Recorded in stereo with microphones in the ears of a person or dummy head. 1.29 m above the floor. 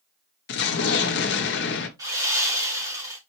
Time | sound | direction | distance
0.5 | an explosion | 55° left (ahead or behind) | 0.8 m
2.0 | sawing | 20° right (ahead or behind) | 2 m